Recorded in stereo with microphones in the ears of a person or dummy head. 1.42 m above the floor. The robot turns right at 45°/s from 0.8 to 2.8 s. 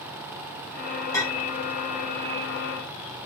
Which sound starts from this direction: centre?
A clink, at 1.1 s.